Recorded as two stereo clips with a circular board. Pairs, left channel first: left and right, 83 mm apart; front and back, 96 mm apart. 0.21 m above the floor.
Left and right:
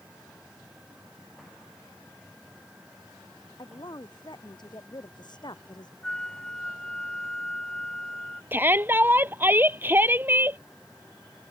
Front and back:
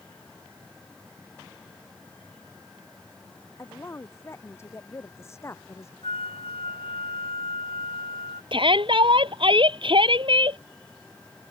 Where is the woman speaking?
60° left.